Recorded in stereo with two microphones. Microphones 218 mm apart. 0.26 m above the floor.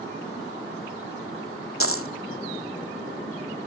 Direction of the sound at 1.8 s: 85° left.